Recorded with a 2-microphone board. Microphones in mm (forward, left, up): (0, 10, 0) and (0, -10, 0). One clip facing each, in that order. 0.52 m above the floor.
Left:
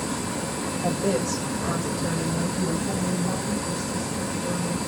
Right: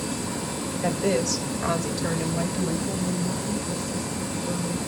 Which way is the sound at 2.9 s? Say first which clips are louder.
Left 1 dB; 25° left (ahead or behind).